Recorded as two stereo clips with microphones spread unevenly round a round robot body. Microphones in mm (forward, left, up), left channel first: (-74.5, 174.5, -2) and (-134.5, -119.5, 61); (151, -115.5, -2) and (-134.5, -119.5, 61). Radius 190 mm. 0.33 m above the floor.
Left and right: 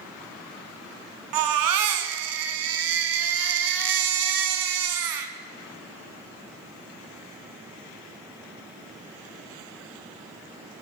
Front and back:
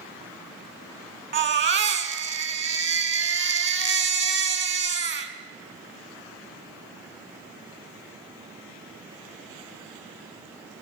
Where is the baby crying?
125° right, 1.5 m.